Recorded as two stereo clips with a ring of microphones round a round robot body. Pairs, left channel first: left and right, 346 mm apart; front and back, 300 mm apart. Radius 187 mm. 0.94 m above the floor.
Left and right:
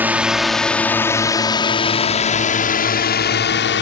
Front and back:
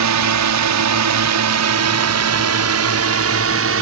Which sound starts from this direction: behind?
A drone, at 0.0 s.